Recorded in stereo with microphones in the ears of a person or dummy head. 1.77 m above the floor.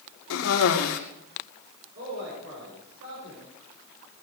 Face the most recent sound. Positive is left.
turn(degrees=-60)  # may be behind; listen again after turning